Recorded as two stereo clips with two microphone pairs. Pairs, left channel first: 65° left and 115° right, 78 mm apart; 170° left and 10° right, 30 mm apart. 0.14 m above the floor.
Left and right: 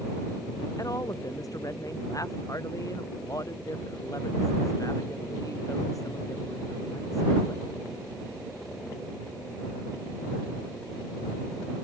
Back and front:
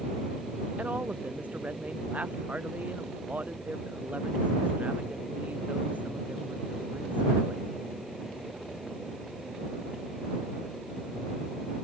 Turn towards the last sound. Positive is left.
turn(degrees=20)